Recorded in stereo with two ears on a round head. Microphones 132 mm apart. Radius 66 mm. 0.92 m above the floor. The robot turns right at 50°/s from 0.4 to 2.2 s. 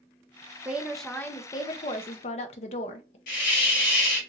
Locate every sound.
0.7 s a woman speaking: 15° right, 0.5 m; by 3.2 s 65° left, 0.5 m
3.3 s a hiss: 65° left (ahead or behind), 1.6 m